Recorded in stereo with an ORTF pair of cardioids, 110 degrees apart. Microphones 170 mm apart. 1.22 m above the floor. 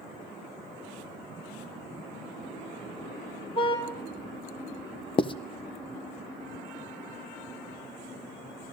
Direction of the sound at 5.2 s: 30° left.